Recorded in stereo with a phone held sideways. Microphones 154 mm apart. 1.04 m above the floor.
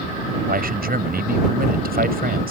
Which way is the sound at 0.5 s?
80° right.